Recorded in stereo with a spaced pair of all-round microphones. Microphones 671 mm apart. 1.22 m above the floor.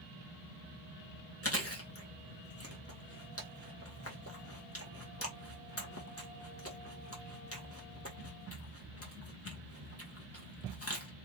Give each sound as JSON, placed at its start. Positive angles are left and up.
{"t": 1.4, "sound": "chewing", "side_deg": 20, "distance_m": 1.4}